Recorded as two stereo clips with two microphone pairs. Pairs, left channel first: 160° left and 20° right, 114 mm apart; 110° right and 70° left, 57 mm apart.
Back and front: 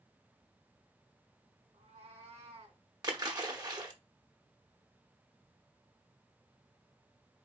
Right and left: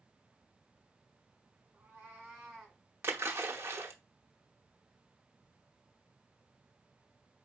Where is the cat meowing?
Straight ahead, 3.5 m; by 2.8 s 15° right, 2.5 m.